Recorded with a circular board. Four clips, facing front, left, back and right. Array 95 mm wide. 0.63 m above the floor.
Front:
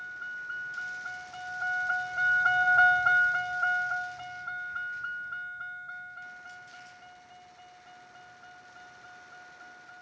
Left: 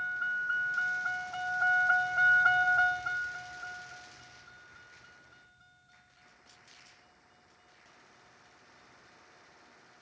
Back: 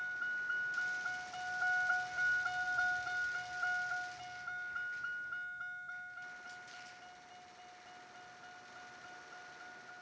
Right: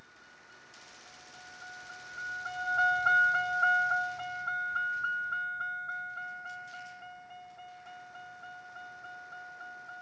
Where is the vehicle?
90° left; by 10.0 s 80° right.